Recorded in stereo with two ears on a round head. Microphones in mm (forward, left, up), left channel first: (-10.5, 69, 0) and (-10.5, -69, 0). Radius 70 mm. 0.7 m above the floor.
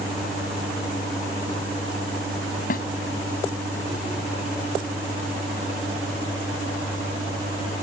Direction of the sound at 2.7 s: 60° left (ahead or behind).